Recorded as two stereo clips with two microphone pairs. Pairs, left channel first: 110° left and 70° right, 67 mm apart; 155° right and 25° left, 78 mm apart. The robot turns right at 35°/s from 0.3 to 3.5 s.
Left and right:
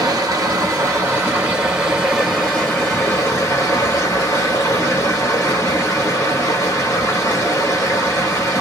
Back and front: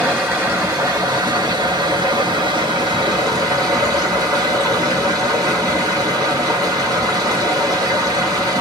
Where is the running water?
40° right, 2.5 m; by 8.6 s 70° left, 2.5 m.